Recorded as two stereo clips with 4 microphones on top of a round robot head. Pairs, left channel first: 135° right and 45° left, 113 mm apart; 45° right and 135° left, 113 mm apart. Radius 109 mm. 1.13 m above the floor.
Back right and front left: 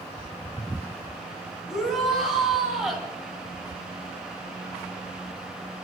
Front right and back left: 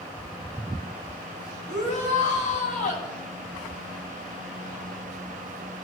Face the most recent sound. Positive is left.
turn(degrees=-45)